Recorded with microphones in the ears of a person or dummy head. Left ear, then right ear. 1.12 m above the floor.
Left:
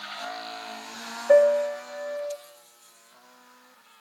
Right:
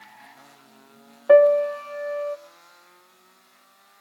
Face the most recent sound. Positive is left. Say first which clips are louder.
# right 4 dB
turn(degrees=-65)  # may be behind; listen again after turning